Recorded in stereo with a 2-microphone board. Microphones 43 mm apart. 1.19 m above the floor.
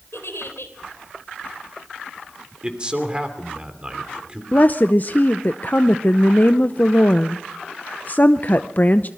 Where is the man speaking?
25° right (ahead or behind), 3 m.